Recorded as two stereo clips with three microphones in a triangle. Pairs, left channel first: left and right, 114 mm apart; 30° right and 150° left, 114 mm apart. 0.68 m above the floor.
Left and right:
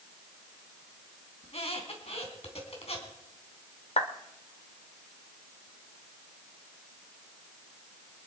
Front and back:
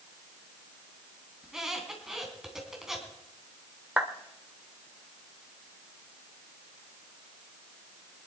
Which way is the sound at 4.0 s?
70° left.